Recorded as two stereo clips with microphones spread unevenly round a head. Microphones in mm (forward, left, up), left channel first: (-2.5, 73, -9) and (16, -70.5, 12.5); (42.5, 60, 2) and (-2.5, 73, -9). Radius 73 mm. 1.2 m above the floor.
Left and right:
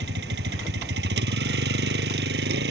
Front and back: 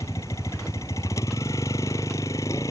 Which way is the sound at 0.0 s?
70° right.